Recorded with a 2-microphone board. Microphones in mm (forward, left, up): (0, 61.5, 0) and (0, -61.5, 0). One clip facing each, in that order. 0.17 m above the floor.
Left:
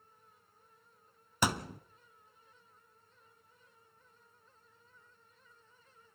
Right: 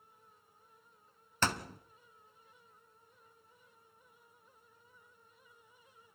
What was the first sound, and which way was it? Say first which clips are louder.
A thud: left 2 dB; 10° left (ahead or behind).